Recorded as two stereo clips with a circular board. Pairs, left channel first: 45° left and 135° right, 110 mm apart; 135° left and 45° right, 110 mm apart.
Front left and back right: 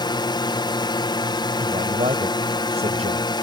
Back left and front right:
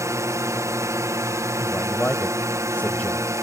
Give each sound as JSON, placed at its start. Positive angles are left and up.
{"t": 0.0, "sound": "a drone", "azimuth_deg": 10}
{"t": 1.6, "sound": "a man speaking", "azimuth_deg": -145}